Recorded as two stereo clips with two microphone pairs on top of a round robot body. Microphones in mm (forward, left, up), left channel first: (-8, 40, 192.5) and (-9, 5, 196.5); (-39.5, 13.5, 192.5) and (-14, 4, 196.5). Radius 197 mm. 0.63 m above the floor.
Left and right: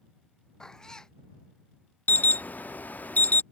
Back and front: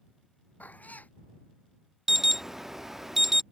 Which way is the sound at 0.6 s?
160° left.